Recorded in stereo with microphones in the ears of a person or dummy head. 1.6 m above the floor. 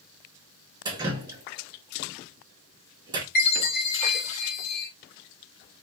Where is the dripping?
20° right (ahead or behind), 1.3 m.